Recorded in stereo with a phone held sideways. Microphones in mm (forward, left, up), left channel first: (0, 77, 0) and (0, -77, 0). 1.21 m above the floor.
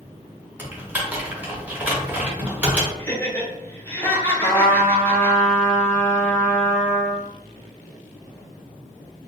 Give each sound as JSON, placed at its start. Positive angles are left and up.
{"t": 0.6, "sound": "typing on a keyboard", "side_deg": -10, "distance_m": 0.7}
{"t": 3.0, "sound": "laughter", "side_deg": 15, "distance_m": 0.9}
{"t": 4.4, "sound": "a trumpet", "side_deg": 55, "distance_m": 0.8}